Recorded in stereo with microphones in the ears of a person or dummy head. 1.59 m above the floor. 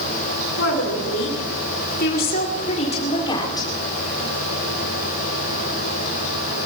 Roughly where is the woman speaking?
Left.